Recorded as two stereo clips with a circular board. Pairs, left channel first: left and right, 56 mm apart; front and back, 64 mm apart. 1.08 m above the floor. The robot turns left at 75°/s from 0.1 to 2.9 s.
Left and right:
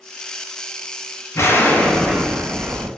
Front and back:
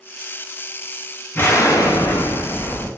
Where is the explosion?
60° left, 0.6 m; by 2.9 s 60° right, 0.6 m.